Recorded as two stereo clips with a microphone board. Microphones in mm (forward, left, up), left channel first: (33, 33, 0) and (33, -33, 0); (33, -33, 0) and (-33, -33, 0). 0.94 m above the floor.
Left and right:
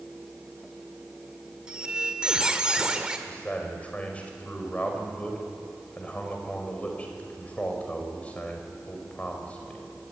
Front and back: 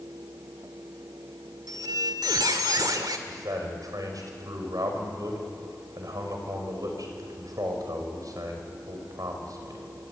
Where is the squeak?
165° right, 1.9 m.